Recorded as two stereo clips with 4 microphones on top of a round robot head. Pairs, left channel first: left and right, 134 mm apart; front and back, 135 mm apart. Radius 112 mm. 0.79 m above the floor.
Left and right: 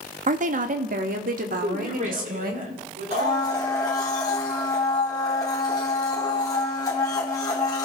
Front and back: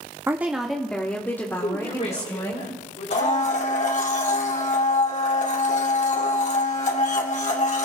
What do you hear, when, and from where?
0.3 s a woman speaking: 105° right, 1.1 m; by 2.6 s 70° right, 3.5 m
1.6 s a woman speaking: 50° right, 2.5 m
3.1 s a blender: 25° left, 2 m